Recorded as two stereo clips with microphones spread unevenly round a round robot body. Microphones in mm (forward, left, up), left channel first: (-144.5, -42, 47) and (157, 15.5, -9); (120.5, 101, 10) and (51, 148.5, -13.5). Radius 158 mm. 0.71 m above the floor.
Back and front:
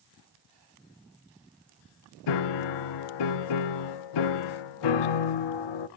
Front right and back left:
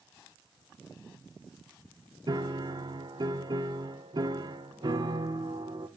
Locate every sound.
2.3 s a piano: 175° right, 0.7 m